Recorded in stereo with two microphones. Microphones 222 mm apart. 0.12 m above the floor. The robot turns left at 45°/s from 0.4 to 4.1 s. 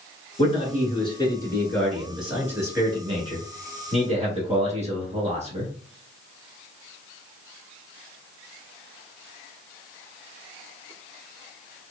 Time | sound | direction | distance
0.4 | a man speaking | 75° left | 1.2 m